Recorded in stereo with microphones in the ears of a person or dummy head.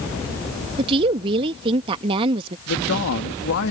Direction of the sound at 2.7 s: 75° left (ahead or behind).